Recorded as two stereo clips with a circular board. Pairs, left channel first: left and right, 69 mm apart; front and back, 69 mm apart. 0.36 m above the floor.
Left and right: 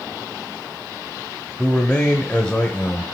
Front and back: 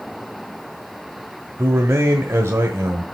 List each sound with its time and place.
1.6 s a man speaking: 160° left, 1.4 m